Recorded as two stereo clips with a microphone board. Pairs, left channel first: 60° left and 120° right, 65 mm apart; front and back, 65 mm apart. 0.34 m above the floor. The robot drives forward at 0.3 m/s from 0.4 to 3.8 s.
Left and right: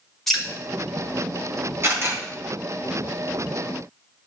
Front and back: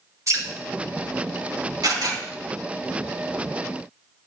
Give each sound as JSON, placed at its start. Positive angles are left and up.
{"t": 0.3, "sound": "dripping", "azimuth_deg": 145, "distance_m": 3.5}
{"t": 1.8, "sound": "a camera shutter", "azimuth_deg": -165, "distance_m": 3.5}